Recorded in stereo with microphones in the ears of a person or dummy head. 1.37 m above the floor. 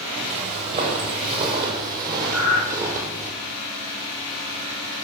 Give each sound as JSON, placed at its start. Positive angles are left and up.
{"t": 0.3, "sound": "footsteps", "side_deg": -35, "distance_m": 2.0}
{"t": 2.3, "sound": "breathing", "side_deg": 75, "distance_m": 4.0}